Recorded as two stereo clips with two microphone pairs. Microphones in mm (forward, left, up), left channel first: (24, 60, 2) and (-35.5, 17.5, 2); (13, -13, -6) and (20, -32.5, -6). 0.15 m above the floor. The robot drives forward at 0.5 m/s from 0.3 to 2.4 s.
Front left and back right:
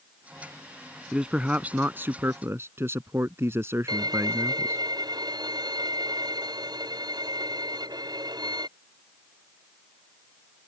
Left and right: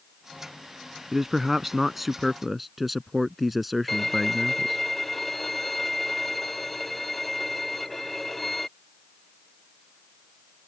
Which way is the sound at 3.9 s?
170° right.